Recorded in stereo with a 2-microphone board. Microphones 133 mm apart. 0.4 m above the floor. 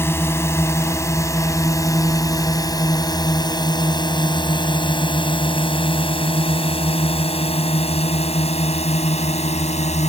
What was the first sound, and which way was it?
A drone, 20° left (ahead or behind).